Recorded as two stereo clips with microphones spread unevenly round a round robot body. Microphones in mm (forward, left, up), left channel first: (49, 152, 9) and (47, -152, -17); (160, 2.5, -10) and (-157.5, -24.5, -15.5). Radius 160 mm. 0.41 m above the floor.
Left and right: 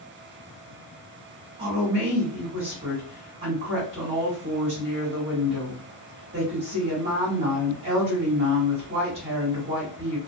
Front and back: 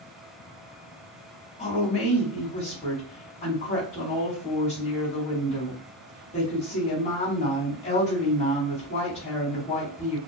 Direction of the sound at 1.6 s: 50° right.